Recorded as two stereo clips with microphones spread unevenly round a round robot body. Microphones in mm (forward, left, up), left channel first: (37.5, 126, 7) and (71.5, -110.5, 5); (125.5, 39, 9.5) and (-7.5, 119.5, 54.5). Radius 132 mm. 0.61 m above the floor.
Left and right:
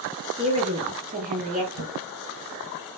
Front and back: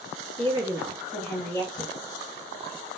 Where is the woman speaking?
140° right, 1.1 m; by 1.6 s 65° right, 1.1 m.